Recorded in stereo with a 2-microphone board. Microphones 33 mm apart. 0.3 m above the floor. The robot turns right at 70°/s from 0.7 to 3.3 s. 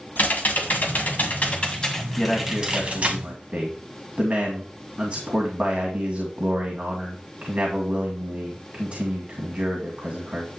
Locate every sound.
0.2 s typing on a keyboard: 75° left, 2 m; by 3.2 s 110° right, 2 m
2.2 s a man speaking: 160° left, 2 m; by 10.5 s 120° right, 2 m